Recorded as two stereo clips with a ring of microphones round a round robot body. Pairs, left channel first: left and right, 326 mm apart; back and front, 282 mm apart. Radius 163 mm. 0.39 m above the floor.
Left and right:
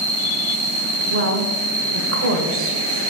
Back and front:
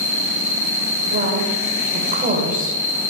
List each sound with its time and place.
0.0 s an insect: 160° right, 3.5 m
1.1 s a woman speaking: 55° right, 1.2 m